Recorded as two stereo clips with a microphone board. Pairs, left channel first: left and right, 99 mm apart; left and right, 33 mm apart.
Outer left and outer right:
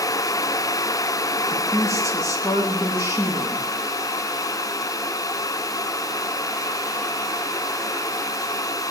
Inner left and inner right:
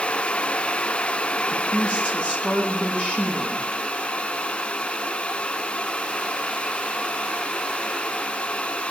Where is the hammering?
I don't hear hammering.